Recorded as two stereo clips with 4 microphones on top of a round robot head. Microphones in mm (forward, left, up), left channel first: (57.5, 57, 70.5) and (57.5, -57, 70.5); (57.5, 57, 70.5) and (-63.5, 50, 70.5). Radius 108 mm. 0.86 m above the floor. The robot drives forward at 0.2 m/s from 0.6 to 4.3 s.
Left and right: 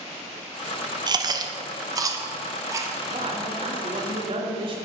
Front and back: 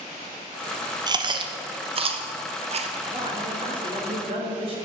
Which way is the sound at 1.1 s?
130° right.